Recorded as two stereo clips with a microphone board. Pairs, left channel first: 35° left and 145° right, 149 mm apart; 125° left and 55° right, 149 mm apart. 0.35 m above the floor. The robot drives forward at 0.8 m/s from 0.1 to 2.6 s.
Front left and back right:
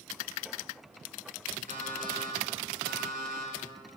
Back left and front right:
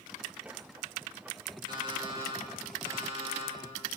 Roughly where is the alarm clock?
Behind right.